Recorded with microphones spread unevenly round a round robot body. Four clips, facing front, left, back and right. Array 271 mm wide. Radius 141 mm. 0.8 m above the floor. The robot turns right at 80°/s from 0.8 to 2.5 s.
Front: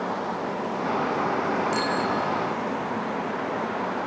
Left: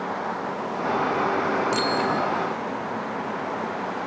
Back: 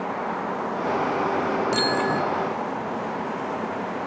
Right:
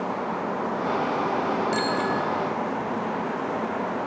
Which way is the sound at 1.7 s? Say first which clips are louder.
Left 1 dB, back 2 dB; 130° left.